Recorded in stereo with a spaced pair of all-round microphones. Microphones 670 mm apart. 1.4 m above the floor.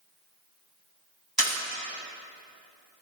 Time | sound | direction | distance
1.4 | a camera shutter | 30° right (ahead or behind) | 2 m